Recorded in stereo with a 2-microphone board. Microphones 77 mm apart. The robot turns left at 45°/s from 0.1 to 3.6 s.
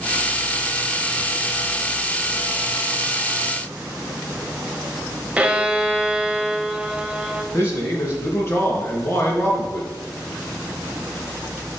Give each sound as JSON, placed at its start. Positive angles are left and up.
{"t": 5.4, "sound": "a violin", "side_deg": -15, "distance_m": 1.0}
{"t": 7.5, "sound": "a man speaking", "side_deg": 35, "distance_m": 4.0}